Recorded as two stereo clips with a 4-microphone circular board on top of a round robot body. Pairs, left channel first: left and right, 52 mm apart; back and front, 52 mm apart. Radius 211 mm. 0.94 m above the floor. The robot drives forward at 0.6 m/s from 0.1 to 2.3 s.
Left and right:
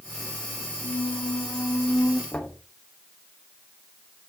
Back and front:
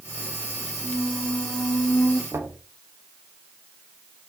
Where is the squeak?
95° left, 0.6 m; by 2.2 s 145° left, 1.1 m.